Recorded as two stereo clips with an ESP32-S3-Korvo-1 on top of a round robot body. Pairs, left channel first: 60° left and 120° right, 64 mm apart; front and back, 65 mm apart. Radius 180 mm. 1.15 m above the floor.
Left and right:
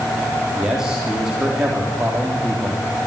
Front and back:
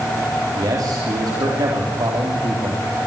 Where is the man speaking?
160° left, 3 m.